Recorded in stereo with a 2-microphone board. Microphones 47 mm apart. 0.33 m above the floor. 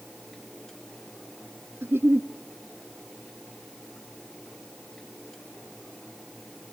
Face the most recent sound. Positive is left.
turn(degrees=-55)  # may be behind; listen again after turning